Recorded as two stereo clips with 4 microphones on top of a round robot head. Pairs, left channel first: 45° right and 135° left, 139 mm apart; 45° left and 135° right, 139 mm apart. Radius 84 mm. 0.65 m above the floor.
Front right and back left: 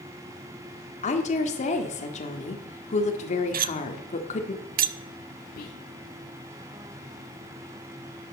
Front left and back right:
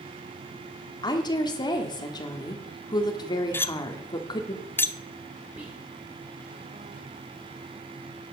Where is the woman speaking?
15° right, 1.4 m.